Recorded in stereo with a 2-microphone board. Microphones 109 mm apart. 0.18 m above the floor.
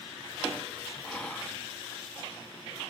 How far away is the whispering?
About 1.1 m.